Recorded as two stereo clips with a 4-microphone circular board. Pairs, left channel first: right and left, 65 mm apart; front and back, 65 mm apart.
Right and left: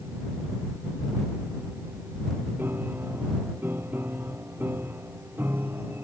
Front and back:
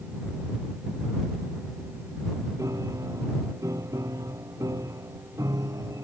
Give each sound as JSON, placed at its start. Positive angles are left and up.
{"t": 2.6, "sound": "a piano", "azimuth_deg": 145}